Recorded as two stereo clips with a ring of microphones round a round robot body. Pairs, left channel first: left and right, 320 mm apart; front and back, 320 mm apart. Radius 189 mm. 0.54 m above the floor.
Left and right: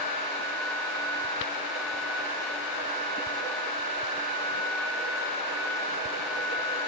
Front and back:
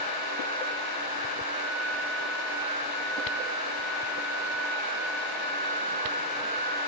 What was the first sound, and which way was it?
Only background noise.